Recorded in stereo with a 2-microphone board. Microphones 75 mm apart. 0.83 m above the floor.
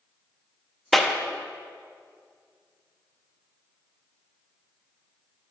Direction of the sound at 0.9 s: 5° left (ahead or behind).